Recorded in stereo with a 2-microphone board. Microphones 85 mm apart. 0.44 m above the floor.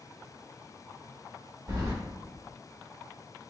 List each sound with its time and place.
1.7 s keys jangling: 40° right (ahead or behind), 1.1 m